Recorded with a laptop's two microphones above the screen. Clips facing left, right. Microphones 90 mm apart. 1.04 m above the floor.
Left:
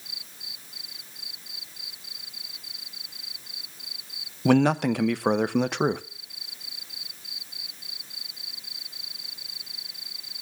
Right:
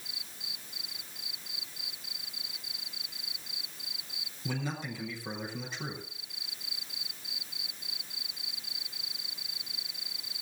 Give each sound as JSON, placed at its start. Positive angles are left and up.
{"t": 4.5, "sound": "a man speaking", "side_deg": 65, "distance_m": 0.6}